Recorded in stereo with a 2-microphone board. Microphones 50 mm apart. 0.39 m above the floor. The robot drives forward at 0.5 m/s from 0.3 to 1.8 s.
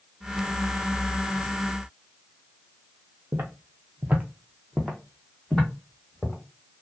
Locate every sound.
3.3 s footsteps: 60° right (ahead or behind), 0.6 m; by 6.3 s 15° left (ahead or behind), 1.3 m